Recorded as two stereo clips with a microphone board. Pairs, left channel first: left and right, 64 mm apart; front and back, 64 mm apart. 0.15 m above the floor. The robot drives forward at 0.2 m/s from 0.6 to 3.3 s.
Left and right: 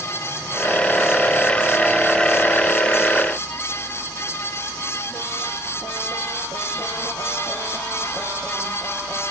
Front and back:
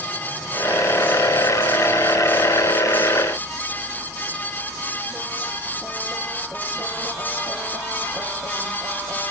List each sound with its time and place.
Only background noise.